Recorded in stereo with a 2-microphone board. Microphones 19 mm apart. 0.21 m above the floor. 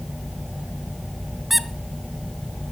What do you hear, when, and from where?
1.5 s a squeak: 5° right (ahead or behind), 0.8 m